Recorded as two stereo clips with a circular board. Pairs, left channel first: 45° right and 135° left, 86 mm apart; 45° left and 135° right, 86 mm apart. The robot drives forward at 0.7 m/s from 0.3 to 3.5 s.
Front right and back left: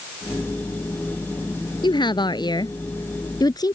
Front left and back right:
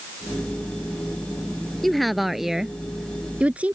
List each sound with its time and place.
1.8 s a woman speaking: 45° right; by 3.8 s 65° right